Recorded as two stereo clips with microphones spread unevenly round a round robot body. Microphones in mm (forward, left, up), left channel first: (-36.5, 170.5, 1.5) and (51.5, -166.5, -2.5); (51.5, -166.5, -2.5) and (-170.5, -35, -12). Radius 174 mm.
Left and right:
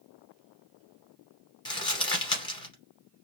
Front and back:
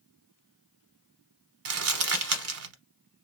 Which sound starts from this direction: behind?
Crumpling, at 1.6 s.